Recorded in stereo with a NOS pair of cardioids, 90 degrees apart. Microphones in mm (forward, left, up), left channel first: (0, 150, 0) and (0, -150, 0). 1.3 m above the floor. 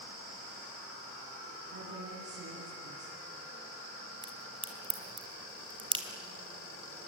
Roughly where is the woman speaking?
Ahead right.